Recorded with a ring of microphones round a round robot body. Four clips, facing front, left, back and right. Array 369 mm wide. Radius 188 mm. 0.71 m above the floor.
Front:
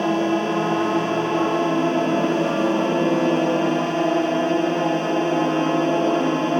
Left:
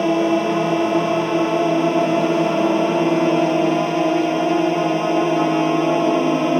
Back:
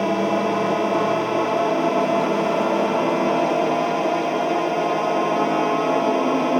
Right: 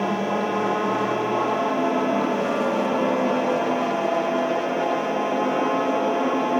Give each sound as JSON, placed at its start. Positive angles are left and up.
{"t": 0.0, "sound": "a drone", "azimuth_deg": 60}